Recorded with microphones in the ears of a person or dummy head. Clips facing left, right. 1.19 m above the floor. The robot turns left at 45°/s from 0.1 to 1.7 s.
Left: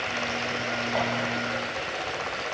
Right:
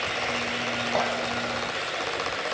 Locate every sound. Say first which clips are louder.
0.9 s a clink: right 2 dB; 50° right (ahead or behind), 1.8 m; by 1.1 s 55° right (ahead or behind), 1.8 m